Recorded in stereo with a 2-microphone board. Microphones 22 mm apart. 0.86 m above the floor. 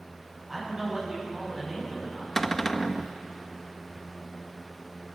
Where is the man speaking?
20° right (ahead or behind), 7 m.